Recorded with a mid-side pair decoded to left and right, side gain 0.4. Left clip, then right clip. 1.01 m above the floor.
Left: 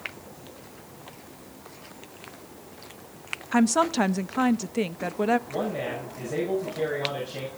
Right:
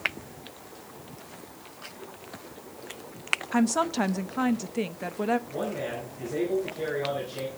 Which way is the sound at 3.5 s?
30° left.